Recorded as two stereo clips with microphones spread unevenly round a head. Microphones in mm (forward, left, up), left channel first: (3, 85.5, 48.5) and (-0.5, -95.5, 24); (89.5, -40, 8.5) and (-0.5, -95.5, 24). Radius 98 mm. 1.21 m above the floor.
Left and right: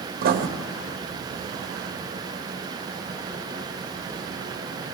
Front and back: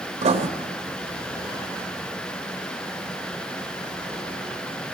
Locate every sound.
0.2 s writing: 130° right, 1.4 m